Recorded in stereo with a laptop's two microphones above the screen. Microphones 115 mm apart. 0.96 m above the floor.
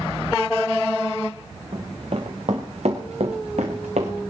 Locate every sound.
1.7 s running footsteps: 50° right (ahead or behind), 3 m; by 4.1 s 75° right (ahead or behind), 3.5 m